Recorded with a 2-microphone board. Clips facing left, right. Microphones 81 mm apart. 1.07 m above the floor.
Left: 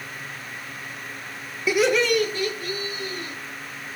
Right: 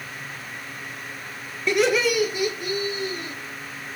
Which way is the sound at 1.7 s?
5° left (ahead or behind).